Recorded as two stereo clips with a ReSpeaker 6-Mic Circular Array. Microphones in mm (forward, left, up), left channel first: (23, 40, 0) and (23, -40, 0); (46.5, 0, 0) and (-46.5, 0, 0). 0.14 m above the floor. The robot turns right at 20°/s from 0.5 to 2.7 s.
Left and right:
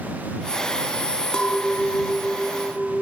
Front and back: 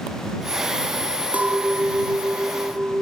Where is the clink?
150° left; by 3.0 s 175° left.